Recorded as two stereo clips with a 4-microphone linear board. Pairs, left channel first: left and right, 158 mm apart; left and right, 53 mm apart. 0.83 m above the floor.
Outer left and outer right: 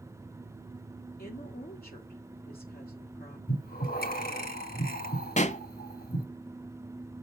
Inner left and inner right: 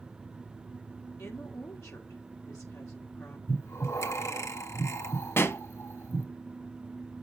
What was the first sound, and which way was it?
A woman speaking, 70° left (ahead or behind).